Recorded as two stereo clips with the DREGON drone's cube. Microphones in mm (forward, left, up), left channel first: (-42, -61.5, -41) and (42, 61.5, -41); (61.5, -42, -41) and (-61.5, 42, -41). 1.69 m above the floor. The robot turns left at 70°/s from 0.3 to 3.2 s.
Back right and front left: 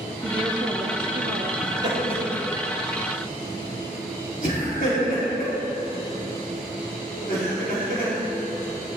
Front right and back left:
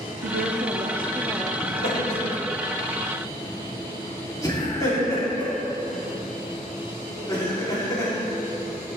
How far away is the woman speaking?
About 1.0 m.